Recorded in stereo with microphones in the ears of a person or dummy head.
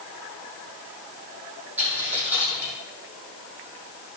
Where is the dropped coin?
10° right (ahead or behind), 5.5 m.